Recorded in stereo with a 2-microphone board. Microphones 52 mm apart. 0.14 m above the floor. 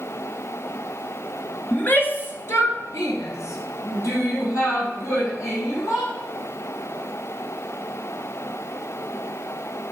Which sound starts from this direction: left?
A shout, at 1.7 s.